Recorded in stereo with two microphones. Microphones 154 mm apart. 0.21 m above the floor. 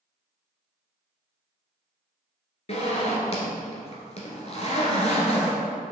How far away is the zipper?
About 1.4 m.